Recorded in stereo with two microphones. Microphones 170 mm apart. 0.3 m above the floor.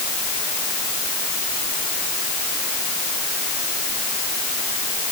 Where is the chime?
No chime in this recording.